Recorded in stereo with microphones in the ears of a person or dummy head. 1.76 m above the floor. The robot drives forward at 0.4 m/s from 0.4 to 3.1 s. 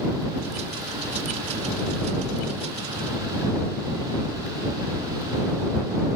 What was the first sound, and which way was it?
Only background noise.